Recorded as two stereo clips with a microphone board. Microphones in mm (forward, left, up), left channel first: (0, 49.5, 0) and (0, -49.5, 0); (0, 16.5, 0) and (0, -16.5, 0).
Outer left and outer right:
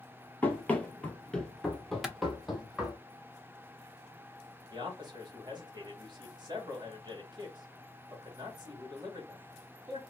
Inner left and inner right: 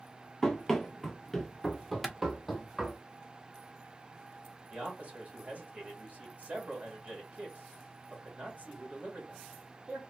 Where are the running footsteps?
15° left (ahead or behind), 0.7 m; by 3.0 s 5° right (ahead or behind), 1.2 m.